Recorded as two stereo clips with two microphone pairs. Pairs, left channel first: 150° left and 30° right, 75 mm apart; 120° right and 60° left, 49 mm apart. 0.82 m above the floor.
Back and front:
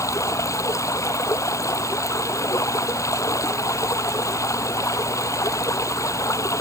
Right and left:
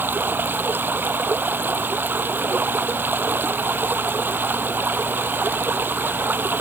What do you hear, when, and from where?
0.0 s running water: 105° left